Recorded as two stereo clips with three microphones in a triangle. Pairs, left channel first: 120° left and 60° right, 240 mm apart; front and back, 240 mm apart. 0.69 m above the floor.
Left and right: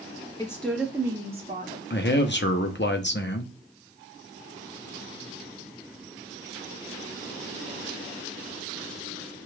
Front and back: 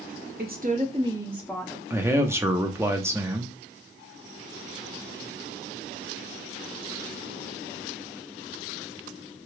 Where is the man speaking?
105° left, 0.6 m.